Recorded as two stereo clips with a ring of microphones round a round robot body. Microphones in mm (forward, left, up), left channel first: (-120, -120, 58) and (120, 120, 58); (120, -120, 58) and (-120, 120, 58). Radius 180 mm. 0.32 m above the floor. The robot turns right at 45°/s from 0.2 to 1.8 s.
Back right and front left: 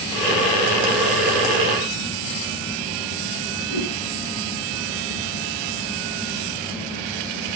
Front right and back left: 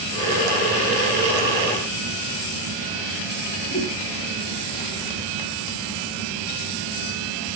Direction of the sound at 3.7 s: 130° right.